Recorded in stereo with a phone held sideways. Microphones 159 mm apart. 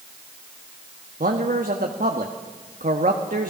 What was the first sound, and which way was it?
A man speaking, 60° right (ahead or behind).